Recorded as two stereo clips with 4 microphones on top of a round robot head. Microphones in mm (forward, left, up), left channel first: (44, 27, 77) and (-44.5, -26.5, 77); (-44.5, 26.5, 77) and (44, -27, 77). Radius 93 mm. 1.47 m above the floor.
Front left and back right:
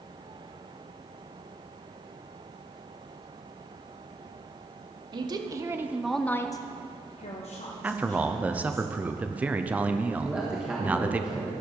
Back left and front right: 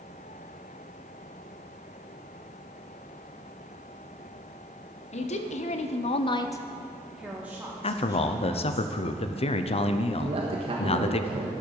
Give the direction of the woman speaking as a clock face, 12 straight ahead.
7 o'clock.